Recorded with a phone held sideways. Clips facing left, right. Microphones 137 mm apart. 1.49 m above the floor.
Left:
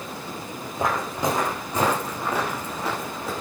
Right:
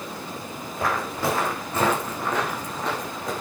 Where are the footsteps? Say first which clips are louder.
Left 1 dB; 20° left (ahead or behind), 6 m; by 3.3 s 5° left (ahead or behind), 7 m.